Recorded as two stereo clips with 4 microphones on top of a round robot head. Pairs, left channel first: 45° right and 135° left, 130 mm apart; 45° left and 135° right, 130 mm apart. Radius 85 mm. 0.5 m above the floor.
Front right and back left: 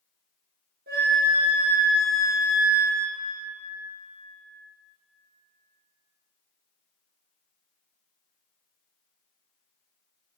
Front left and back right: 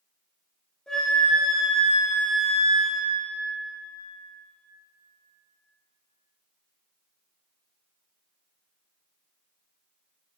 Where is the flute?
125° left, 3.5 m.